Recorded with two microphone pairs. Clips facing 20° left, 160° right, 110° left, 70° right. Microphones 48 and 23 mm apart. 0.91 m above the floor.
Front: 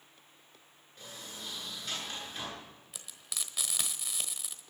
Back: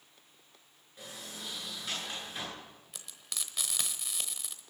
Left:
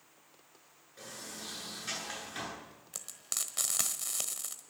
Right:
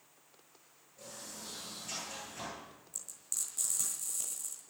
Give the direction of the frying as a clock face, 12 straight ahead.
8 o'clock.